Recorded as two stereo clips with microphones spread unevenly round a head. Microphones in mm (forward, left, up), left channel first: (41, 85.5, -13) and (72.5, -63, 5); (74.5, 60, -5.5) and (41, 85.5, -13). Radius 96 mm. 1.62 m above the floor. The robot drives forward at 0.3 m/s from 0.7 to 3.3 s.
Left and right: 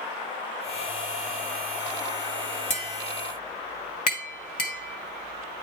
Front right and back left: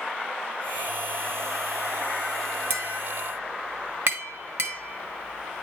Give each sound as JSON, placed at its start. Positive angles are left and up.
{"t": 2.7, "sound": "tapping", "azimuth_deg": 130, "distance_m": 1.5}